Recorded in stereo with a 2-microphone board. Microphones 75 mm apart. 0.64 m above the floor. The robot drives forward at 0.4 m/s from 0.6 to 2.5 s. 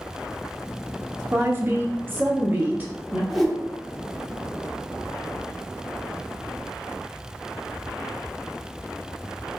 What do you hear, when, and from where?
1.3 s a woman speaking: 35° right (ahead or behind), 0.6 m; by 3.2 s 25° right (ahead or behind), 0.7 m
3.3 s a whoosh: centre (ahead or behind), 0.5 m